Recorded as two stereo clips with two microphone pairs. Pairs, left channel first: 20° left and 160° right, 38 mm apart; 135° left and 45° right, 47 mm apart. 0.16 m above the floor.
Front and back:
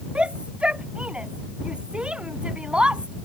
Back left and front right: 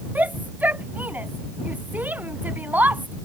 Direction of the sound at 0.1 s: 95° right.